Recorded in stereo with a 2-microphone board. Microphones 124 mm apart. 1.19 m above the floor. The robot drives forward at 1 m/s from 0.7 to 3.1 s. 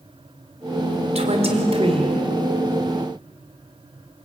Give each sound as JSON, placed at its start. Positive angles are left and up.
{"t": 1.1, "sound": "a woman speaking", "side_deg": -60, "distance_m": 3.5}